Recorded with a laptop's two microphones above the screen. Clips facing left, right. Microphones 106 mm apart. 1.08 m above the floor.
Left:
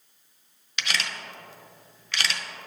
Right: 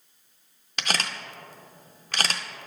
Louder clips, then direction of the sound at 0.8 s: Right 2 dB; 40° right (ahead or behind).